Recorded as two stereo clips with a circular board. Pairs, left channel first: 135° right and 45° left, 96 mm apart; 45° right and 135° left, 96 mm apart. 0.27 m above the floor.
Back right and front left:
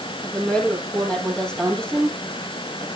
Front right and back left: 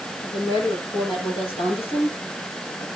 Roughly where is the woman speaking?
Ahead right.